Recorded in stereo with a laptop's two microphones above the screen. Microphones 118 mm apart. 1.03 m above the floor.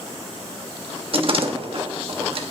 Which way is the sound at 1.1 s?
50° right (ahead or behind).